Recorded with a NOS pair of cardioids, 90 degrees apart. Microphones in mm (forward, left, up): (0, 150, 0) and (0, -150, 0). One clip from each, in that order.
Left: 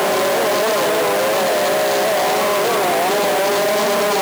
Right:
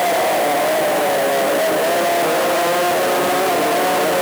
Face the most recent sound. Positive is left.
No sound to turn to.